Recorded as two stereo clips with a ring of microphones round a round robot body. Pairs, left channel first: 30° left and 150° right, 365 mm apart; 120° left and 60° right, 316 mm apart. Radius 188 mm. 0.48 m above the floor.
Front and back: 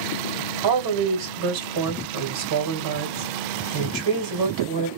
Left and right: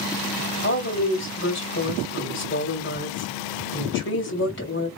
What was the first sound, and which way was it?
A woman speaking, straight behind.